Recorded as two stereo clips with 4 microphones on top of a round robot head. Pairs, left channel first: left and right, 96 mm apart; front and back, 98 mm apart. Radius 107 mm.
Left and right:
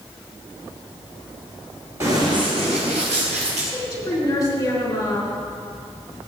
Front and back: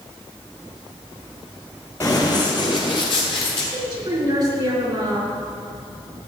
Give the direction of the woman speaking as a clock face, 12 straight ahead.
7 o'clock.